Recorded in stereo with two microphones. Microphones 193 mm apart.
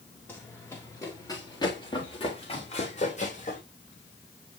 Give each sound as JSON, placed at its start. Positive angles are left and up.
{"t": 0.3, "sound": "running footsteps", "side_deg": 10, "distance_m": 4.0}